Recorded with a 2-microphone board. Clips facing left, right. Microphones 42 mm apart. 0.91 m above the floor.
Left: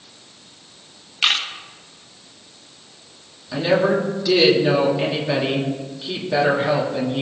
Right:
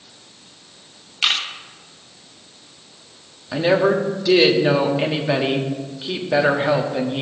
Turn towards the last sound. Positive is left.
turn(degrees=-20)  # may be behind; listen again after turning